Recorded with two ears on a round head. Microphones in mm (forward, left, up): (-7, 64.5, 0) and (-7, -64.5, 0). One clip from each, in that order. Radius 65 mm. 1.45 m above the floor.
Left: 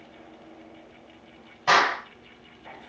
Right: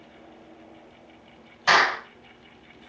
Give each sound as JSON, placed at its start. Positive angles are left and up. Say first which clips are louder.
{"t": 1.7, "sound": "a clap", "louder": "right 1 dB", "side_deg": -60, "distance_m": 6.0}